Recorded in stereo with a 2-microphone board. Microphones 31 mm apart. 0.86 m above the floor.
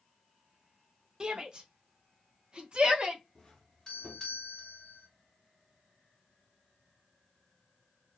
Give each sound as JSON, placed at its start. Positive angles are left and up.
{"t": 1.2, "sound": "a shout", "side_deg": -25, "distance_m": 1.0}
{"t": 3.4, "sound": "a doorbell", "side_deg": 25, "distance_m": 3.0}